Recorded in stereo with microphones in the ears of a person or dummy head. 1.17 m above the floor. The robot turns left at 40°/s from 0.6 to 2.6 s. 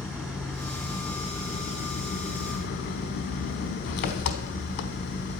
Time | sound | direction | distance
0.0 | an engine running | straight behind | 1.1 m